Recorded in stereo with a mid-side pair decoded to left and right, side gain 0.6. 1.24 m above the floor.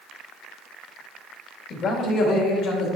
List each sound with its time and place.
1.7 s a man speaking: 40° left, 1.7 m; by 2.9 s 60° left, 2 m